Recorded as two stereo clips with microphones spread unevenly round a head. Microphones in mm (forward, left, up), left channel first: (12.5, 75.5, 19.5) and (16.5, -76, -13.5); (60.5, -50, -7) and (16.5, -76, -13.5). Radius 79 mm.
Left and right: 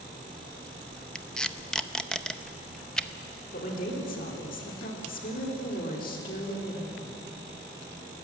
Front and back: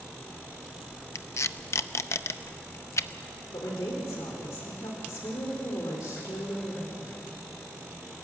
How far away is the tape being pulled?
About 0.7 m.